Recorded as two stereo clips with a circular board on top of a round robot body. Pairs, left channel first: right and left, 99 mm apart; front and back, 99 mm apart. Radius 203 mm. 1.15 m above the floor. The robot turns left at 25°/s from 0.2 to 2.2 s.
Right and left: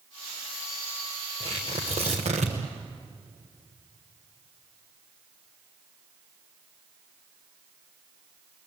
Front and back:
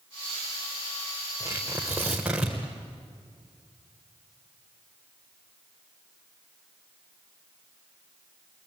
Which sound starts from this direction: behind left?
Tearing paper, at 1.4 s.